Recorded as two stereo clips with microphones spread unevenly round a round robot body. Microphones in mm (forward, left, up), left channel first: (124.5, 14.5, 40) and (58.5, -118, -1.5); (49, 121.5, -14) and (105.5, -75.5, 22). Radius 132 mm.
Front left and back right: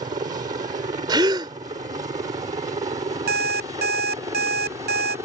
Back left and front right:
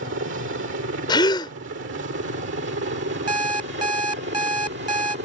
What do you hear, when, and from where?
0.0 s a helicopter: 85° right; by 5.2 s 80° right
1.1 s a gasp: 175° left
3.3 s an alarm clock: 150° right